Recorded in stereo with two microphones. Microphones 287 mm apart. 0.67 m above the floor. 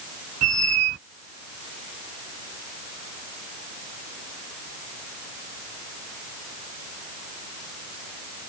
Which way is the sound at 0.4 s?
55° right (ahead or behind).